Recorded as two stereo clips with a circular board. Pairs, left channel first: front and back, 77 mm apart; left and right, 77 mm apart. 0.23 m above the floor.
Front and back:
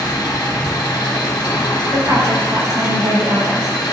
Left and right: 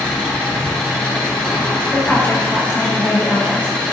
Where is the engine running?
15° left, 3 m.